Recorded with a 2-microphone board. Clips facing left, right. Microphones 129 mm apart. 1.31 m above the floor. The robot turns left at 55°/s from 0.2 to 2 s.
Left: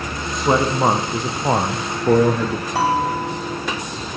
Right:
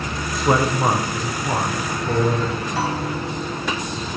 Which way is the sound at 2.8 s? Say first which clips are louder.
Left 8 dB; 65° left (ahead or behind).